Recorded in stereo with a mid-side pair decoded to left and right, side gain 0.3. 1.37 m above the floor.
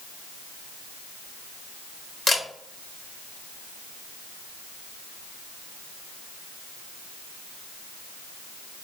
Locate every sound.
2.3 s a camera shutter: 55° left, 1.1 m